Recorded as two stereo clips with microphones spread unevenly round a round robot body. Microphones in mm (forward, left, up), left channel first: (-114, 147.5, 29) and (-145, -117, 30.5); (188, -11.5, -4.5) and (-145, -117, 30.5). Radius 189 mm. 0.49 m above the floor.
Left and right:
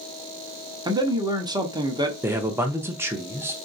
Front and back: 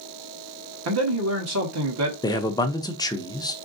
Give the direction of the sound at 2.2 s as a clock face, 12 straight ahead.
1 o'clock.